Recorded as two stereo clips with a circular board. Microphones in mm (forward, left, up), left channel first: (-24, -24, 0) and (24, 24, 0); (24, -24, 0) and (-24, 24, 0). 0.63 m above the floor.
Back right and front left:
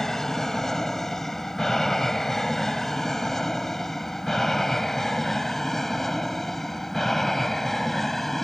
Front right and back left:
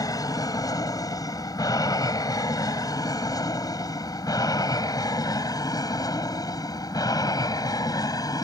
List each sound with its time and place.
0.0 s an aircraft: 50° right